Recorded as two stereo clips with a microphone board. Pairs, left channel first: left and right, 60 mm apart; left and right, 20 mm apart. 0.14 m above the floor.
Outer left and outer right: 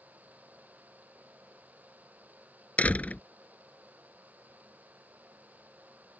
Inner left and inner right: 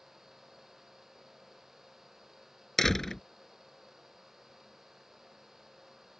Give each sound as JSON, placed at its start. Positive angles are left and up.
{"t": 2.8, "sound": "a door slam", "side_deg": 25}